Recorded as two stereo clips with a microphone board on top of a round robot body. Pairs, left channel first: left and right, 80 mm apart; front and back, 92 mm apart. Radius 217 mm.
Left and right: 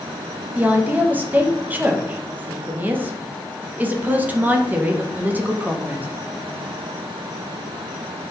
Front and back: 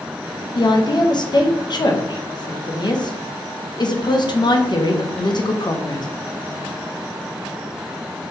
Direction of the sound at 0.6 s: 25° right.